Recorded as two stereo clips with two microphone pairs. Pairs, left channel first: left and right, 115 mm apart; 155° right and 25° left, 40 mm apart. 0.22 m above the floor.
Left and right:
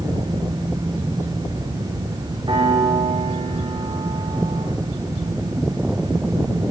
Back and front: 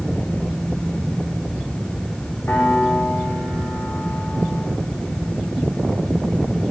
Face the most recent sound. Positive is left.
turn(degrees=-135)